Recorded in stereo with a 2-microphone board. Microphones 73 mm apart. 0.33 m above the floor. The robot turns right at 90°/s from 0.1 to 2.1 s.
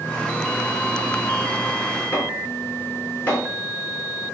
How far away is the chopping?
About 4.5 m.